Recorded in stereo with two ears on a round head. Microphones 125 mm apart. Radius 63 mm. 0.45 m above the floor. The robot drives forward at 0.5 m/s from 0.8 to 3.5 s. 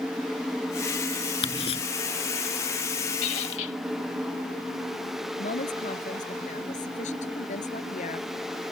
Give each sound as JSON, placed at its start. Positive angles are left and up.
{"t": 1.4, "sound": "ticking", "side_deg": 45}
{"t": 3.2, "sound": "a squeak", "side_deg": 55}
{"t": 5.4, "sound": "a woman speaking", "side_deg": 55}